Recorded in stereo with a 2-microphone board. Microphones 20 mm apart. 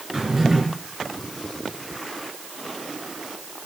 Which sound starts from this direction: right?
A drawer, at 0.1 s.